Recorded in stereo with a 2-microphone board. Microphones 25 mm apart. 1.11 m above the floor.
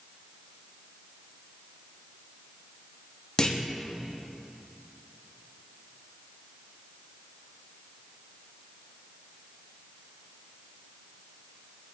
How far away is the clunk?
About 0.6 m.